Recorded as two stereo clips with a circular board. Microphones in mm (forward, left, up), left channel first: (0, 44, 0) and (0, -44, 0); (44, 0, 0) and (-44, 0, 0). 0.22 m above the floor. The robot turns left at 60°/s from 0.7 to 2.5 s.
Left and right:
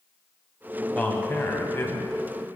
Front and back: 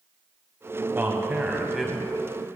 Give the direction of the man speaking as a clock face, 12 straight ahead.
7 o'clock.